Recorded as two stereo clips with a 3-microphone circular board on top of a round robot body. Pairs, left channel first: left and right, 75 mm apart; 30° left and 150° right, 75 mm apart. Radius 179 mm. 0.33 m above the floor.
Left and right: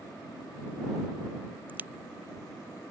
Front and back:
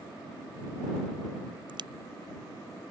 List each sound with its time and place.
1.7 s a crack: 160° right